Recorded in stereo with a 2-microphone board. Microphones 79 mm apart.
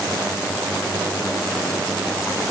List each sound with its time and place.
Only background noise.